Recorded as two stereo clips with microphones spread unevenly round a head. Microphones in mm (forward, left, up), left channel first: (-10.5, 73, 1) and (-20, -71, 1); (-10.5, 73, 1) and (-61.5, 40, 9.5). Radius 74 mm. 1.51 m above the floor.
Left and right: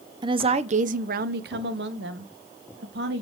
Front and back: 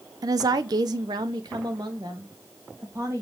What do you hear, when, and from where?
0.2 s a woman speaking: 155° right, 0.7 m; by 3.2 s 75° right, 1.5 m